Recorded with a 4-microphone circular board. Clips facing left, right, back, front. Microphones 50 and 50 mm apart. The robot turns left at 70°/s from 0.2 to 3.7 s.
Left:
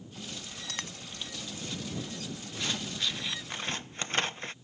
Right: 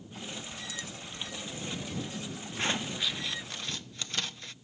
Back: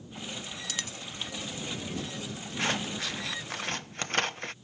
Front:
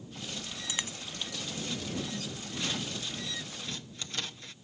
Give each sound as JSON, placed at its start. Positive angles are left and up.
{"t": 0.7, "sound": "a dropped coin", "azimuth_deg": 70}
{"t": 2.6, "sound": "scissors", "azimuth_deg": -140}